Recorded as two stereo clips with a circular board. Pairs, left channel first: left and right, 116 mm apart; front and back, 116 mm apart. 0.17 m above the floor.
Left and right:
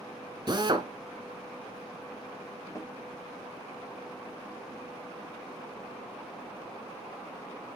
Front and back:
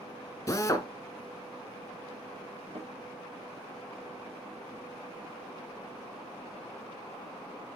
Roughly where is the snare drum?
Behind left.